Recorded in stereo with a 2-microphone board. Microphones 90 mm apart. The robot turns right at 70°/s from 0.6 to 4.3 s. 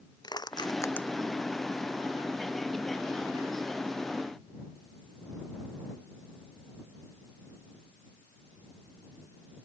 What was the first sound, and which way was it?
Crushing, 50° left (ahead or behind).